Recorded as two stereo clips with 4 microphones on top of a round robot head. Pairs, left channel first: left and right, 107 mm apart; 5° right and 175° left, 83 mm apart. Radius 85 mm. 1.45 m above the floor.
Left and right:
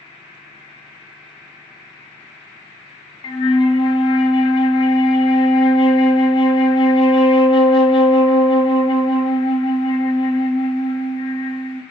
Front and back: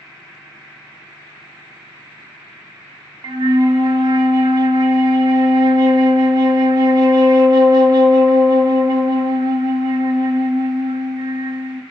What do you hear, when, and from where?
3.2 s a flute: 135° left, 0.8 m